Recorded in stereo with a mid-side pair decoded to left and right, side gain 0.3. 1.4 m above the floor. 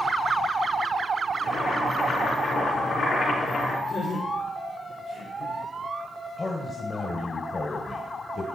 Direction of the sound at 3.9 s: 65° left.